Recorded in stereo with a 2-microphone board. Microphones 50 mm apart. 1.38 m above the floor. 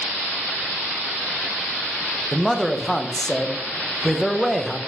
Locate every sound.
2.3 s a man speaking: 10° left (ahead or behind), 0.8 m